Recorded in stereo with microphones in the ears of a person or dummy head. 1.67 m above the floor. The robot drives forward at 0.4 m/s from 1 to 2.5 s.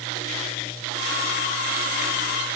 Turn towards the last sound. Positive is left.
No sound to turn to.